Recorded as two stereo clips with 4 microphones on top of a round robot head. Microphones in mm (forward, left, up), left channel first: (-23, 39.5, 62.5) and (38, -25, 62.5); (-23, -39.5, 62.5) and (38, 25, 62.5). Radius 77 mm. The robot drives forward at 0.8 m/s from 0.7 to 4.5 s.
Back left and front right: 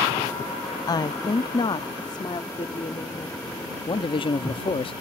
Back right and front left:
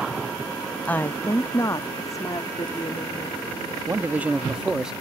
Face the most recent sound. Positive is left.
turn(degrees=130)